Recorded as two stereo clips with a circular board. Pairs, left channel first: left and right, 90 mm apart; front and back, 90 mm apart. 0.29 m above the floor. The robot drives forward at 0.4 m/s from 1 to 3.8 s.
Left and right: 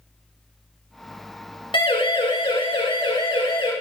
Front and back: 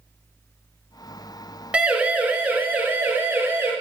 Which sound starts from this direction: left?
A siren, at 1.7 s.